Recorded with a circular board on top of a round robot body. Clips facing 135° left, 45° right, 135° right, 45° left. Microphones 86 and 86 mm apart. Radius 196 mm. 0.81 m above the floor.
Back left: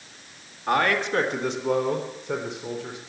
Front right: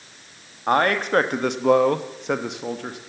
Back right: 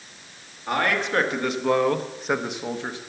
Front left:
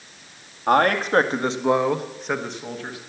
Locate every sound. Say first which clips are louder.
0.7 s a man speaking: front right 3 dB, front left 6 dB; 10° left, 1.5 m; by 3.0 s 70° right, 1.5 m